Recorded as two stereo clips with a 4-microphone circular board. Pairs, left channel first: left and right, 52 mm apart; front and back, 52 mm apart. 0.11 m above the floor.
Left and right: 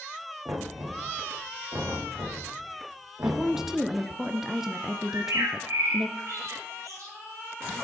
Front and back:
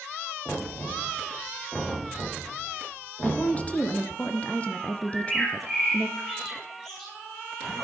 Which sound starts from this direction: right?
A bird, at 5.1 s.